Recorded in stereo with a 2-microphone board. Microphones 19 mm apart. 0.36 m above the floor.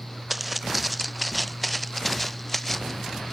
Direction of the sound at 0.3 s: 10° right (ahead or behind).